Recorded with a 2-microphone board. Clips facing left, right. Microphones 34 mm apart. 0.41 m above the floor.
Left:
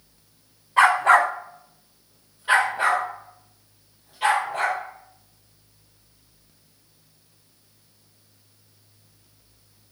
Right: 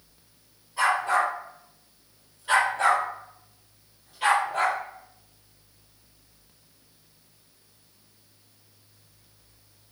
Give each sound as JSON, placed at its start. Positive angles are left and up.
{"t": 0.8, "sound": "a dog barking", "side_deg": 60, "distance_m": 1.4}